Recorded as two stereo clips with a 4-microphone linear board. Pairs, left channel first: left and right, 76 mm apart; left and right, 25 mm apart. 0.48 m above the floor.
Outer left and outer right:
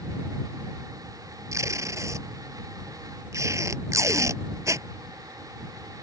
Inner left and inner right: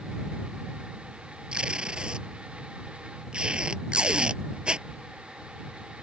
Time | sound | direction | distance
1.5 | tape being pulled | 45° right (ahead or behind) | ?